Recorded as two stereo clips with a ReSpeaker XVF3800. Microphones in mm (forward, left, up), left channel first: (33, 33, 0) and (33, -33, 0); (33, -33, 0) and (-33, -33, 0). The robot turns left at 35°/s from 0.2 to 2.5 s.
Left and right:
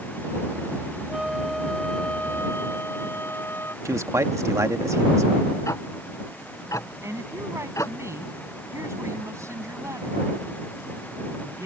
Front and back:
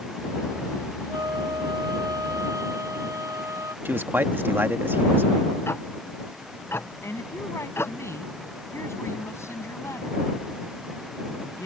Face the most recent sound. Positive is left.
turn(degrees=-45)